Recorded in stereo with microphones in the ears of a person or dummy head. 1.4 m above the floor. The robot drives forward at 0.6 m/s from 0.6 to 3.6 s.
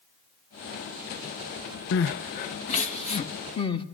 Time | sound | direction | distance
1.9 | crying | 60° left (ahead or behind) | 0.9 m